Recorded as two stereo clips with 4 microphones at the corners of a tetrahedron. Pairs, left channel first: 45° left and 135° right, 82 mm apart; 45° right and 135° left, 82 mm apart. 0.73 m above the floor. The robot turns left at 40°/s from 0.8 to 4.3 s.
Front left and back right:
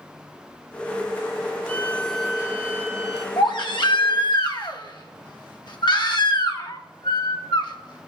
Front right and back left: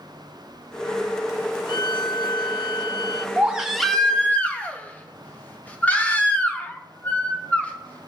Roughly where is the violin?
Ahead right.